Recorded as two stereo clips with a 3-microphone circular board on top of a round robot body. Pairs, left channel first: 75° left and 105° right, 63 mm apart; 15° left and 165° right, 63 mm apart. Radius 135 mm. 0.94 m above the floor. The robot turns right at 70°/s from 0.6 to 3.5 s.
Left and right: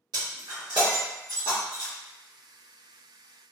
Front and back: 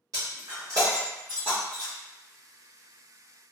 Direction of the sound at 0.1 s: 130° right.